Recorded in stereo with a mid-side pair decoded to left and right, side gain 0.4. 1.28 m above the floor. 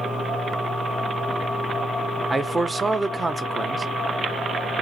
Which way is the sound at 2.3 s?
30° right.